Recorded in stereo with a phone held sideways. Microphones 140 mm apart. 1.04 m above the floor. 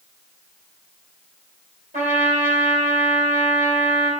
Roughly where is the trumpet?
Right.